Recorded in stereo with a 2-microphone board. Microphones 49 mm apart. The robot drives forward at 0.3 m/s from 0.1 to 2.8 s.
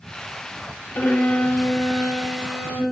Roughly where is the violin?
Left.